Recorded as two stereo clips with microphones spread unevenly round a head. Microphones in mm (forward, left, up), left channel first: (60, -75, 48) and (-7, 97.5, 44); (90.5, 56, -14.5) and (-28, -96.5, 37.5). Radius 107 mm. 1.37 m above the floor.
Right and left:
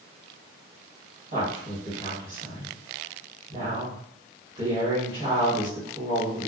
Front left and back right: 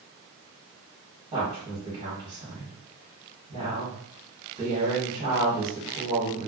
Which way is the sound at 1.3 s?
160° left.